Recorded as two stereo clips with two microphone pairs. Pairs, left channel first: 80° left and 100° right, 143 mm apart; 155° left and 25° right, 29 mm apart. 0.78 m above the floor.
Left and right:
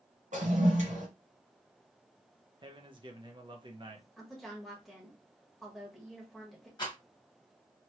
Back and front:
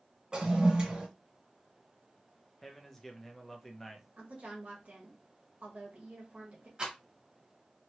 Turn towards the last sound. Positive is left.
turn(degrees=25)